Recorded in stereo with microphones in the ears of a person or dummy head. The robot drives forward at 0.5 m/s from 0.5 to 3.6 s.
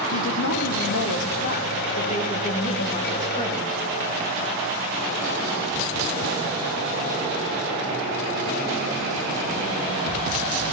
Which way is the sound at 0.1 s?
75° left (ahead or behind).